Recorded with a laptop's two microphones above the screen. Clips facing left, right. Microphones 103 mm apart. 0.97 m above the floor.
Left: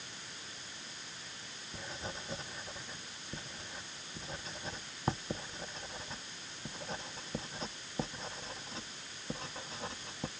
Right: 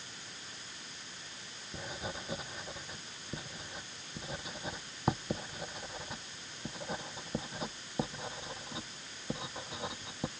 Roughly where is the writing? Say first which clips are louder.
Right 3 dB; centre.